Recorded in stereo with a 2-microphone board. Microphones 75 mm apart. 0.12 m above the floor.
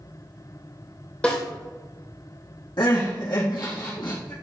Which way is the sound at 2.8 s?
70° left (ahead or behind).